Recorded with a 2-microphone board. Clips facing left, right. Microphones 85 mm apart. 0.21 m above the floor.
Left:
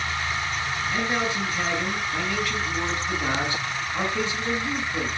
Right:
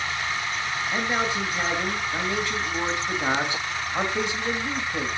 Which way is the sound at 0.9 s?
20° right (ahead or behind).